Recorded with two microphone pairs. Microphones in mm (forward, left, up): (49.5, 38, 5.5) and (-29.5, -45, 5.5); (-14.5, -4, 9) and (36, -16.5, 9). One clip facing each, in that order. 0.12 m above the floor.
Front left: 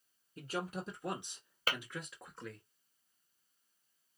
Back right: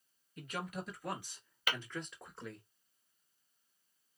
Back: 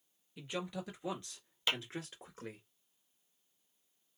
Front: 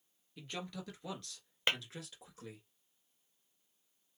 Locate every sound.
0.4 s a man speaking: 90° left, 1.9 m; by 2.7 s 145° left, 1.6 m
1.7 s tapping: 15° left, 1.4 m